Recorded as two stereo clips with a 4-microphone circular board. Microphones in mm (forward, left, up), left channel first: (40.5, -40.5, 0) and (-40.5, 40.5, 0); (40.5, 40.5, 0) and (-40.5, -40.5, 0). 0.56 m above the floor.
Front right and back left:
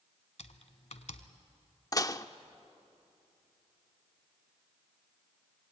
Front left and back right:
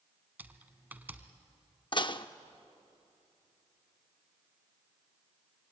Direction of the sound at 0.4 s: 60° right.